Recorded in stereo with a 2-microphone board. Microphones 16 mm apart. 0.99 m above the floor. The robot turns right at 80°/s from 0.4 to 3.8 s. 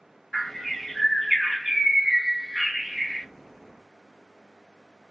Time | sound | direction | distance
0.3 | a bird | 105° left | 1.0 m